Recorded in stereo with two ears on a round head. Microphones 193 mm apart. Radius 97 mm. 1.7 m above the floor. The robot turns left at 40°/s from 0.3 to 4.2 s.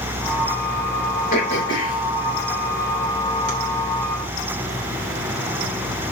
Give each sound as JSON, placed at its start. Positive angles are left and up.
{"t": 1.3, "sound": "throat clearing", "side_deg": 40, "distance_m": 3.0}